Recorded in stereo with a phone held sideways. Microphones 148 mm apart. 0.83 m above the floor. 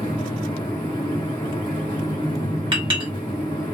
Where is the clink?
35° right (ahead or behind), 1.0 m.